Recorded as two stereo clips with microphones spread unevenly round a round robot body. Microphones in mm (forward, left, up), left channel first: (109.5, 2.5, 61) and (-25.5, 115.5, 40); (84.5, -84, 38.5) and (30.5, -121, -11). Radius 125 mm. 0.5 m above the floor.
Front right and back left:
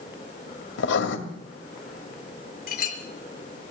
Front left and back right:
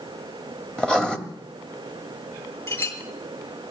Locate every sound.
0.8 s writing: 55° right, 2.5 m
2.7 s a clink: 5° right, 5 m